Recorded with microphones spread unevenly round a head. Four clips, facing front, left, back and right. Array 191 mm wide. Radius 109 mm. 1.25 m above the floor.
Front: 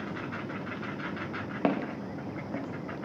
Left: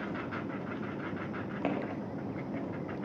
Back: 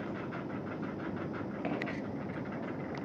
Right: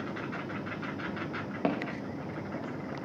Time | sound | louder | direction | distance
1.6 | footsteps | right 3 dB, front 9 dB | 15° right | 6 m